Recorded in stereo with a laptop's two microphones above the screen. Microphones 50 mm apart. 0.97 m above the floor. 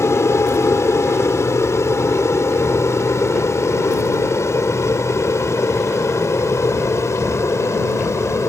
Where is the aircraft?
65° left (ahead or behind); by 8.5 s 70° left (ahead or behind).